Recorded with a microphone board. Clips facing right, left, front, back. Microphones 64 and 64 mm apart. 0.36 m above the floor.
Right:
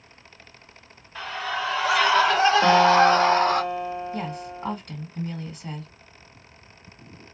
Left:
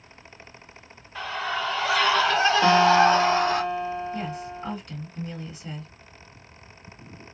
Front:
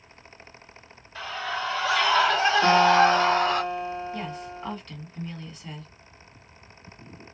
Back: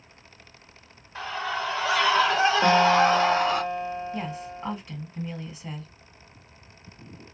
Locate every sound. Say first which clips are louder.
1.1 s a scream: even, back 1 dB; 170° left, 1.6 m; by 3.6 s 105° right, 2 m
2.6 s a guitar: even, front 2 dB; 150° right, 1.3 m
4.1 s a woman speaking: even, back 1 dB; 110° right, 2.0 m